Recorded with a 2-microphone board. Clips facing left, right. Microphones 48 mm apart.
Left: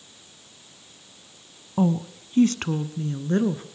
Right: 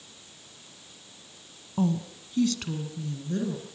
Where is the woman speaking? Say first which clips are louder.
Left 4 dB; 20° left (ahead or behind), 1.0 m; by 3.6 s 45° left (ahead or behind), 2 m.